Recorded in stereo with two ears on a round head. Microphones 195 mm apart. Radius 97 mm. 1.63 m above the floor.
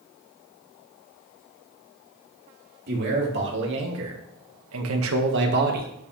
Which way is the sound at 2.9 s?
50° right (ahead or behind).